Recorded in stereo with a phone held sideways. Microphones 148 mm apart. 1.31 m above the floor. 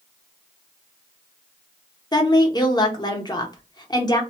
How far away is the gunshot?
No gunshot in this recording.